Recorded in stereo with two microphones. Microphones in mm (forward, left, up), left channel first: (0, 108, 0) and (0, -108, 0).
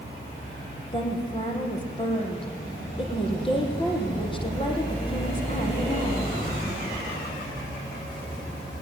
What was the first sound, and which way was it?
A woman speaking, 25° left (ahead or behind).